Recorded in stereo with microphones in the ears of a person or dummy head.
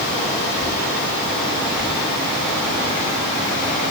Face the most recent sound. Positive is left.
No sound to turn to.